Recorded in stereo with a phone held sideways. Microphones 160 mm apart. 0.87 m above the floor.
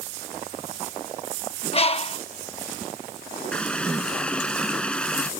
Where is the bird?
35° left (ahead or behind).